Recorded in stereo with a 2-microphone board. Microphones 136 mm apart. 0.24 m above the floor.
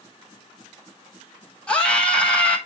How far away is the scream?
About 1.4 m.